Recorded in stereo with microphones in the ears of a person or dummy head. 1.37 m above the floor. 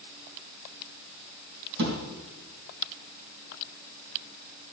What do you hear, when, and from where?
1.8 s a thud: 60° right (ahead or behind), 4 m